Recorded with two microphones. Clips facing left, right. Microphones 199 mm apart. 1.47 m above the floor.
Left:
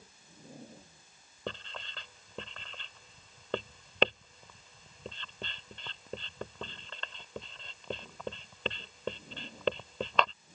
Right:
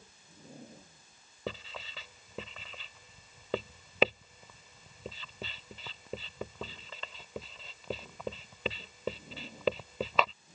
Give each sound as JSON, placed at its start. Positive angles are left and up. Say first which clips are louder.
{"t": 1.5, "sound": "writing", "louder": "right 1 dB", "side_deg": -5}